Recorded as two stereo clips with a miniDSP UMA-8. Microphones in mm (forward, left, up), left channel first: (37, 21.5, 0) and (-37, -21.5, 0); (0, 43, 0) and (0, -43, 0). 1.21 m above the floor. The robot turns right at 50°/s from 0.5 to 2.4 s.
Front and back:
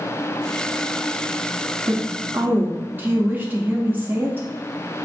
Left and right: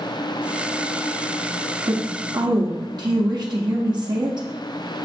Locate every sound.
1.9 s a woman speaking: 115° right, 0.7 m; by 4.5 s 85° right, 0.7 m